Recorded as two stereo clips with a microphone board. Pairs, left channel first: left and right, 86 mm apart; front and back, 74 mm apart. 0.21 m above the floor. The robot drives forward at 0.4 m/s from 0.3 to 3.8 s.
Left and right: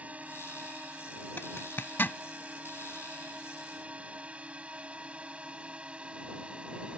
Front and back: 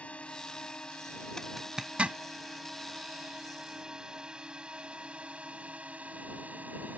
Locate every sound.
0.0 s a drone: 45° right; by 7.0 s 150° right
1.4 s a zipper: 75° left; by 2.2 s 135° left